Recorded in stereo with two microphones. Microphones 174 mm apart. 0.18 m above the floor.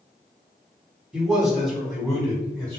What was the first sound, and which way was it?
A man speaking, 5° right (ahead or behind).